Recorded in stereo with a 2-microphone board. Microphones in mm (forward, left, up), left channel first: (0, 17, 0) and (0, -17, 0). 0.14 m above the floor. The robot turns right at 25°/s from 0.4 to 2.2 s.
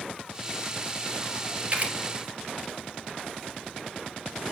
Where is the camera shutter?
35° right (ahead or behind), 2 m; by 1.9 s 40° right (ahead or behind), 2 m.